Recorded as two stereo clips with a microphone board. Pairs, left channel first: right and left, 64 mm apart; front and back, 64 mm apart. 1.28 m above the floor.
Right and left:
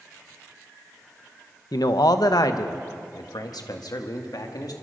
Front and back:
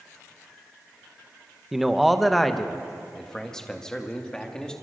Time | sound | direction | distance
1.7 | a man speaking | 95° right | 1.0 m